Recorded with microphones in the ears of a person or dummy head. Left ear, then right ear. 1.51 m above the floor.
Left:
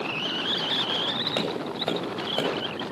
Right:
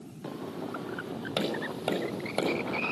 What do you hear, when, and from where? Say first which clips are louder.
1.4 s tapping: left 4 dB; 10° left (ahead or behind), 5.5 m